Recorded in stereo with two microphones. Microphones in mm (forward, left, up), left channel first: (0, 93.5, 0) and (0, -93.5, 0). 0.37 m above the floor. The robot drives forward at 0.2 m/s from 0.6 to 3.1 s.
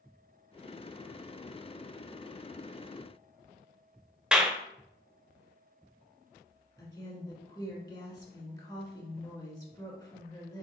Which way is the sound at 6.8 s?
25° left (ahead or behind).